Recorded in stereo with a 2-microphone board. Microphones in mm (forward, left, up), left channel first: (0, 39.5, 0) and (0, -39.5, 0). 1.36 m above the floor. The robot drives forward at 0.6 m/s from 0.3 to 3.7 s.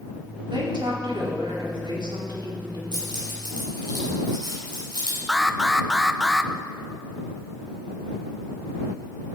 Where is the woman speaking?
85° right, 4.5 m; by 2.8 s 70° right (ahead or behind), 4.5 m.